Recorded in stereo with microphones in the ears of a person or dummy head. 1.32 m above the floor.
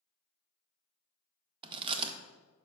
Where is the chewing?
25° right (ahead or behind), 0.6 m.